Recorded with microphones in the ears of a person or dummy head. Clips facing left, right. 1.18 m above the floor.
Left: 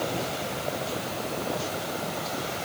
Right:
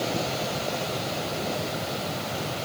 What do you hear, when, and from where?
Only background noise.